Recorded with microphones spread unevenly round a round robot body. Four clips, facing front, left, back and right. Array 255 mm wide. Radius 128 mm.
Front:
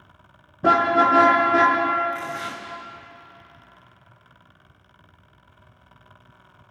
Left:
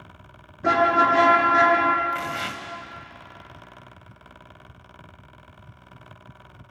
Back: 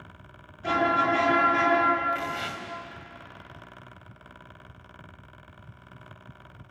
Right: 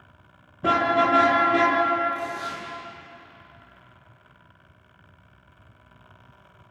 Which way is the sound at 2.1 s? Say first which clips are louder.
Left 1 dB, front 1 dB; 100° left.